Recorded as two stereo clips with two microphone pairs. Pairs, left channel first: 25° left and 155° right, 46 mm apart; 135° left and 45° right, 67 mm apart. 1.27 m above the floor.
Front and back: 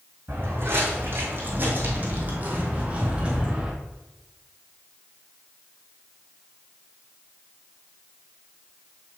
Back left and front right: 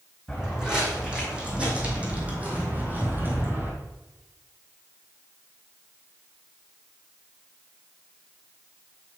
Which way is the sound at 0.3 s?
130° right.